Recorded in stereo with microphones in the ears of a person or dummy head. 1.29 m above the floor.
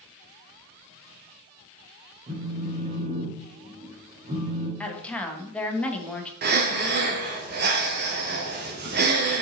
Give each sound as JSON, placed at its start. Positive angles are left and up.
{"t": 2.3, "sound": "a phone buzzing", "side_deg": -35, "distance_m": 2.0}
{"t": 4.8, "sound": "a woman speaking", "side_deg": 5, "distance_m": 1.2}
{"t": 6.4, "sound": "breathing", "side_deg": -45, "distance_m": 1.2}